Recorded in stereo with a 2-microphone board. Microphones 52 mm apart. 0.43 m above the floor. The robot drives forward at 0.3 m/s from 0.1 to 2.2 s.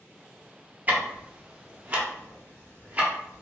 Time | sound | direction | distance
0.9 | ticking | 25° right (ahead or behind) | 0.7 m